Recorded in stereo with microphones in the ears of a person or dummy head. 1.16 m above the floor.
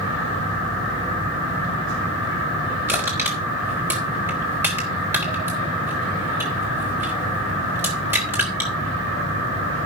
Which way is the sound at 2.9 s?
10° right (ahead or behind).